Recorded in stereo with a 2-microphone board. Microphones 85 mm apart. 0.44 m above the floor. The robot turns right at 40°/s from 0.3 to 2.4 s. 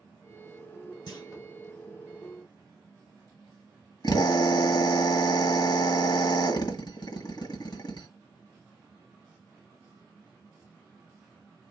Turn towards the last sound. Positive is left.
turn(degrees=60)  # may be behind; listen again after turning